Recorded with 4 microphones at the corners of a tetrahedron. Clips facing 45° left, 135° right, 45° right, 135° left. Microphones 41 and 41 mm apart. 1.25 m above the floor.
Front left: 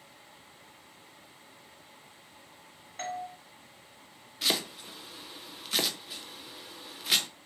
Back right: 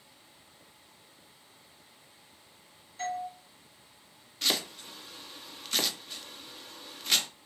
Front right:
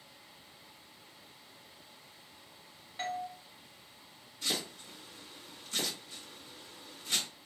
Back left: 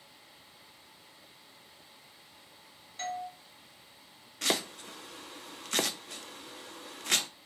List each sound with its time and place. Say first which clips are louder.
3.0 s a doorbell: back right 2 dB, even; 25° left, 0.9 m
4.4 s chopping: front left 1 dB, back left 5 dB; 130° left, 0.5 m